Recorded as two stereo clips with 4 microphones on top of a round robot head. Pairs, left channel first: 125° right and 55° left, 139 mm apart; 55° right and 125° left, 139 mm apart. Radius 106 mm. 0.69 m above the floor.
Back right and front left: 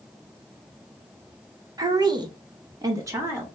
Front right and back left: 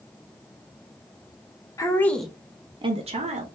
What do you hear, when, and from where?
1.8 s a woman speaking: straight ahead, 1.0 m; by 3.5 s 125° left, 1.3 m